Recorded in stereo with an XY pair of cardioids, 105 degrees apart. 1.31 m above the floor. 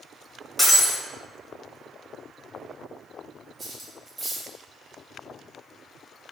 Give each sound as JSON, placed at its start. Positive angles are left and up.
{"t": 0.6, "sound": "breaking glass", "azimuth_deg": 10, "distance_m": 1.2}
{"t": 3.6, "sound": "cutlery clinking", "azimuth_deg": -30, "distance_m": 1.2}